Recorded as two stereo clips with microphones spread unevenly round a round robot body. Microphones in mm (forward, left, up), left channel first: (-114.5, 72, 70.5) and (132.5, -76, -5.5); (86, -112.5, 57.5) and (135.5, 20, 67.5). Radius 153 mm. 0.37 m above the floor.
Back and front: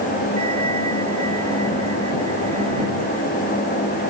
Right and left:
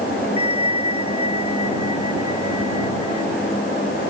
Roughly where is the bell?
Ahead right.